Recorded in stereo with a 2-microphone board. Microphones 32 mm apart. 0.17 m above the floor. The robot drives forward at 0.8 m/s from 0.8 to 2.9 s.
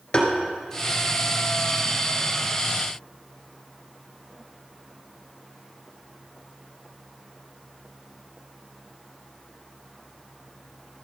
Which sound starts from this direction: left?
Tapping, at 0.1 s.